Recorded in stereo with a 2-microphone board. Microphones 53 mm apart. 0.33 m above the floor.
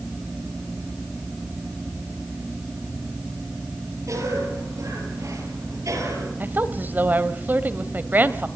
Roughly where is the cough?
Right.